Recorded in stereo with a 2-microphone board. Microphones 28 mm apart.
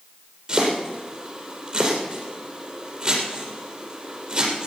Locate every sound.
0.5 s chopping: 30° right (ahead or behind), 5 m